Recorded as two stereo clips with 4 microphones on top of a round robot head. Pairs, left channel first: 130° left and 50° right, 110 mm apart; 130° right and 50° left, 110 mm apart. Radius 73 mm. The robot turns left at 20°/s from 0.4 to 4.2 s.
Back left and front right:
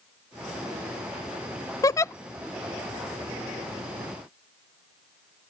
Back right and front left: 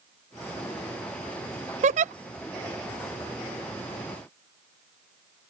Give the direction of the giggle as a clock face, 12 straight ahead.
10 o'clock.